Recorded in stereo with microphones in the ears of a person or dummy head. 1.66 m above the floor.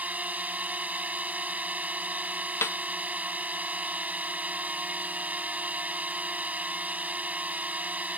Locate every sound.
0.0 s a drone: 10° right (ahead or behind)
2.6 s a snare drum: 10° left (ahead or behind)